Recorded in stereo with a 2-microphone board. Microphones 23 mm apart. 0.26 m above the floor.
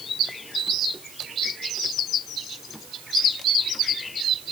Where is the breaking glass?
No breaking glass in this recording.